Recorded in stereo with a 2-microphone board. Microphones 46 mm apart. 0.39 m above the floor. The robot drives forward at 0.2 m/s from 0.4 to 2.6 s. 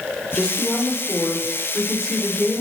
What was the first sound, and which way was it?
A woman speaking, 10° left (ahead or behind).